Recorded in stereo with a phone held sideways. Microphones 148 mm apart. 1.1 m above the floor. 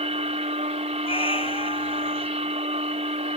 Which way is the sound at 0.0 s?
50° right (ahead or behind).